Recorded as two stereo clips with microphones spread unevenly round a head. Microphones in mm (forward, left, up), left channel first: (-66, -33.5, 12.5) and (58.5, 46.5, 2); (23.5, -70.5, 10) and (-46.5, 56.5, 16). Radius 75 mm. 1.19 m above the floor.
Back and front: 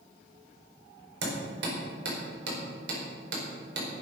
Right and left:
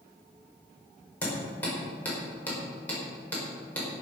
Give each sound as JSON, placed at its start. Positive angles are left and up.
{"t": 1.2, "sound": "hammering", "azimuth_deg": 20, "distance_m": 4.5}